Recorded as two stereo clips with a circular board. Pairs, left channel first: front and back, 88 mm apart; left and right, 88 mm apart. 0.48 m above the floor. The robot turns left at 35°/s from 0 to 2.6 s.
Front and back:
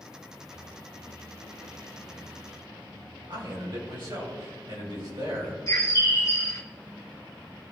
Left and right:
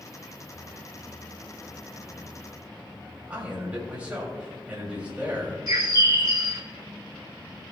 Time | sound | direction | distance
3.3 | a man speaking | 165° right | 3 m
5.7 | a bird | 50° right | 1.5 m